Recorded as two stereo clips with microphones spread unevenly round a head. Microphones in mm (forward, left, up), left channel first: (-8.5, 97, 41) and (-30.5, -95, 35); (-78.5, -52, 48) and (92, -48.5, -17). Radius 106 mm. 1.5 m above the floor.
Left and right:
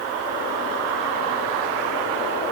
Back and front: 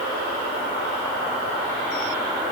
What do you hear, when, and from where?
Only background noise.